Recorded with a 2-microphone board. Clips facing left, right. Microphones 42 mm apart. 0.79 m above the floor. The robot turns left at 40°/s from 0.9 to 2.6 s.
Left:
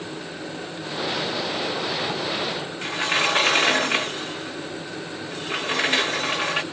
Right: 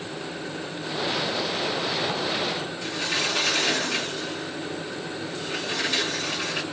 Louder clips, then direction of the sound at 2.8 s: Left 6 dB; 40° left (ahead or behind).